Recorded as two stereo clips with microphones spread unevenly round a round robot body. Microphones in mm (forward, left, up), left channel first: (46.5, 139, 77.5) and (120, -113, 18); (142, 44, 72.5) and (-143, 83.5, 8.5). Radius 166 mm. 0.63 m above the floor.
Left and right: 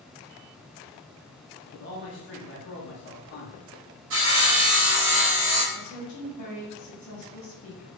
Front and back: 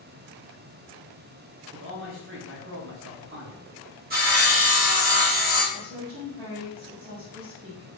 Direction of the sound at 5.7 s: 120° left.